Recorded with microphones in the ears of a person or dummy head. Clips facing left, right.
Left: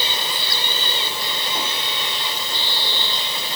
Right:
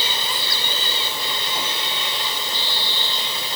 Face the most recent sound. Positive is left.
No sound to turn to.